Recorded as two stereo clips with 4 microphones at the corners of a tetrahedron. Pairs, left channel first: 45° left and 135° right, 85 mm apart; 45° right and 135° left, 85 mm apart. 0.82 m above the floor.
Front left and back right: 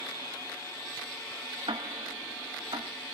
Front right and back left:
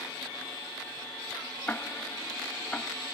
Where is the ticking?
120° right, 0.8 m.